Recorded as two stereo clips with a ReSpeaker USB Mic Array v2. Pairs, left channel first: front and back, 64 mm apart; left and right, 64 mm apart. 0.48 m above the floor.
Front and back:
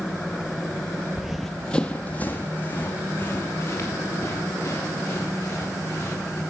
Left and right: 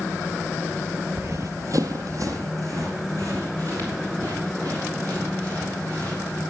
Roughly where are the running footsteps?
Right.